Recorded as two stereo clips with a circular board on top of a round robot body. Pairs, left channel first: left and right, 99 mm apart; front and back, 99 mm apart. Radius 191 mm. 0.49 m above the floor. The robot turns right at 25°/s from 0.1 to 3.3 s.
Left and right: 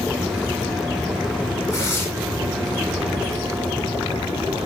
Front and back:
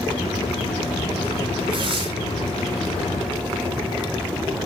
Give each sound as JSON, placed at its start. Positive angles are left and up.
{"t": 1.7, "sound": "tearing paper", "azimuth_deg": 155, "distance_m": 8.0}